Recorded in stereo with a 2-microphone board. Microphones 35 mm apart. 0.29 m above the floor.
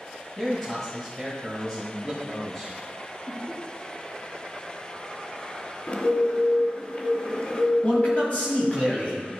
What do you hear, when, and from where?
0.4 s a man speaking: 10° left (ahead or behind), 2.0 m
3.3 s laughter: 55° left (ahead or behind), 2.5 m
5.9 s a bird: 45° left (ahead or behind), 0.9 m
7.8 s a man speaking: 40° left (ahead or behind), 2 m